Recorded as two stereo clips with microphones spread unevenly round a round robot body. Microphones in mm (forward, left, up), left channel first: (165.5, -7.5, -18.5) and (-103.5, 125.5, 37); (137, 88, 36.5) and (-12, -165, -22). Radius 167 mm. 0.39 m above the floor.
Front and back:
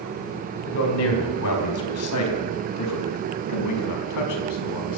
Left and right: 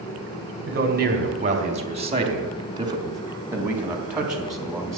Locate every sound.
0.7 s a man speaking: 70° right, 3 m; by 5.0 s 35° right, 3.5 m